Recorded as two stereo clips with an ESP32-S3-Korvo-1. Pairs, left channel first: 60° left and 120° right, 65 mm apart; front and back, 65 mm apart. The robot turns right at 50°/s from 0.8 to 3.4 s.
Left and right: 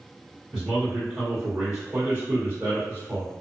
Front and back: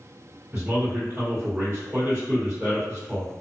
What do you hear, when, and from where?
0.5 s a man speaking: 145° left, 1.7 m; by 3.3 s 90° right, 1.7 m